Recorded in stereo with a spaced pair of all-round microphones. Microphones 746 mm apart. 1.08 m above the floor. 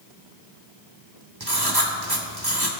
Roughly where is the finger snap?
No finger snap in this recording.